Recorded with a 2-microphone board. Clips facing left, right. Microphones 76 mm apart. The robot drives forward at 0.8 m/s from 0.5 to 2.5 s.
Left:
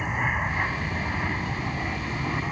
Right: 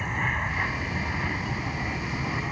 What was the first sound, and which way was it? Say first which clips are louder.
An aircraft: left 2 dB; 10° left (ahead or behind).